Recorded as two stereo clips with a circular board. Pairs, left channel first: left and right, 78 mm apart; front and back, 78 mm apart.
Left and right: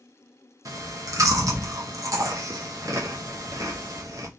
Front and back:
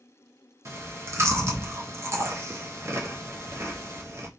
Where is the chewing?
130° right, 0.7 m.